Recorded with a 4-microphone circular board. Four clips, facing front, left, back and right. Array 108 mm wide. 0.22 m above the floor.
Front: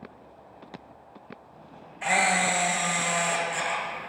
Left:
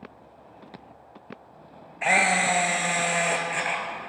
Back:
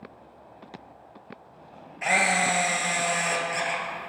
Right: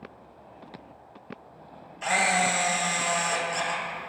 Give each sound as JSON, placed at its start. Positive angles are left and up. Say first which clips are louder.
{"t": 2.0, "sound": "a camera shutter", "louder": "left 2 dB, even", "azimuth_deg": 100, "distance_m": 0.7}